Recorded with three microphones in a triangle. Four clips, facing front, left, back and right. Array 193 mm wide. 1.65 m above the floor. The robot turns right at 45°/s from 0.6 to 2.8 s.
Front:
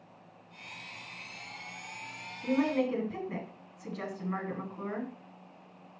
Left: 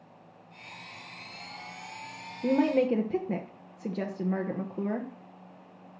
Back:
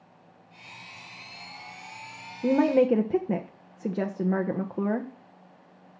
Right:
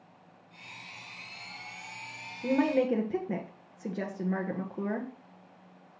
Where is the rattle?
No rattle in this recording.